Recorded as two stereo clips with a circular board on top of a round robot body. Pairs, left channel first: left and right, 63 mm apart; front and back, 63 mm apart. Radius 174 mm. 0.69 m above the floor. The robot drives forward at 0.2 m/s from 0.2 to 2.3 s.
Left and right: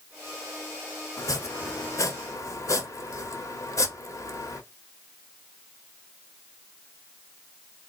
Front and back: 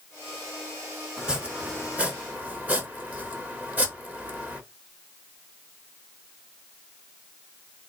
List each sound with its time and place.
1.2 s chopping: 105° left, 1.1 m; by 4.6 s 115° left, 1.2 m